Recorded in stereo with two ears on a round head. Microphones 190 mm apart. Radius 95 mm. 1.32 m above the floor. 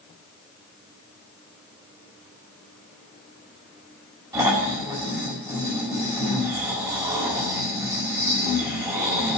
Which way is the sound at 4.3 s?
15° right (ahead or behind).